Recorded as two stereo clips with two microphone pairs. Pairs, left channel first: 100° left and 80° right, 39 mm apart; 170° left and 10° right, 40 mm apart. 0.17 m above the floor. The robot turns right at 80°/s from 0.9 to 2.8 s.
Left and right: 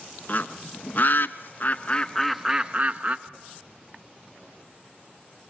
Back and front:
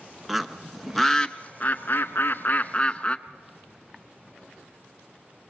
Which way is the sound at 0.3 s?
75° left.